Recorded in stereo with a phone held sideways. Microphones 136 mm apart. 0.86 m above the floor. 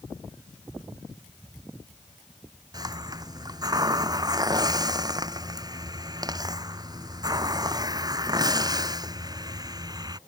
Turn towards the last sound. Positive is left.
turn(degrees=-30)  # may be behind; listen again after turning